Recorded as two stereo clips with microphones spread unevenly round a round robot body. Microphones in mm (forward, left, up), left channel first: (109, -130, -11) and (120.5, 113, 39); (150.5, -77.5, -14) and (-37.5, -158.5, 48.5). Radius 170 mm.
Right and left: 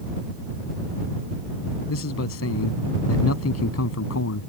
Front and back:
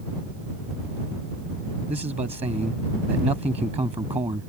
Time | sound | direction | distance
1.9 | a man speaking | 90° right | ?